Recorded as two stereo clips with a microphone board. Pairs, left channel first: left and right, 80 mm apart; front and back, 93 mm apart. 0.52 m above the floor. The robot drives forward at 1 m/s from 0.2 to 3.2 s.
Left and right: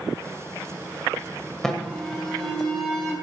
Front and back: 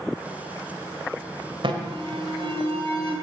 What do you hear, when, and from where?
1.6 s an alarm: 175° left, 1.8 m